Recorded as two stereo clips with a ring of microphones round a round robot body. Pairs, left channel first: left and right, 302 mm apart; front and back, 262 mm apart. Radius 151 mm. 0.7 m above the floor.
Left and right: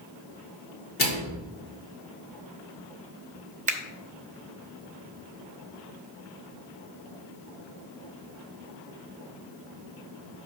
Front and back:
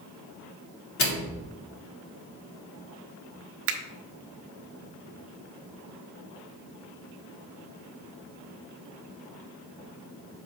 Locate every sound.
1.0 s a microwave: 30° left, 1.9 m
3.7 s a finger snap: 150° right, 0.6 m